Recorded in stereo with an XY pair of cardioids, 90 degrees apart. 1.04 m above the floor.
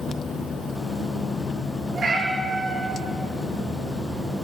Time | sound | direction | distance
1.9 | a cat meowing | 60° right | 5 m